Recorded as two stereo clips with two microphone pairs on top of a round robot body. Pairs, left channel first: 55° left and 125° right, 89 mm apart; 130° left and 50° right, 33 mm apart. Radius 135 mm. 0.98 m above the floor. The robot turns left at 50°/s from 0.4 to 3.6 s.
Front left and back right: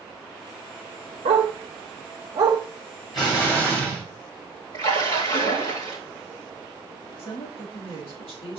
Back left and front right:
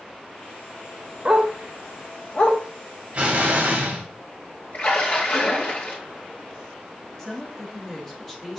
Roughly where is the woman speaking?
Ahead left.